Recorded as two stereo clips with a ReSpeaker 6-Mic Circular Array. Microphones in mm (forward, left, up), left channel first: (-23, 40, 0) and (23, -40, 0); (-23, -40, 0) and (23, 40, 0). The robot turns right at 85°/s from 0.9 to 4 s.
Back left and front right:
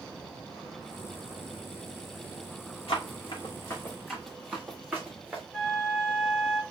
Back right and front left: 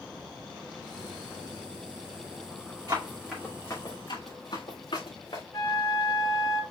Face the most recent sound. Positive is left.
turn(degrees=-160)